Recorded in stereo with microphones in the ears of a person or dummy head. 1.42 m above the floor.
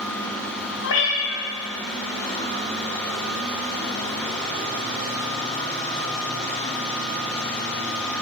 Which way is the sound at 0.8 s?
60° left (ahead or behind).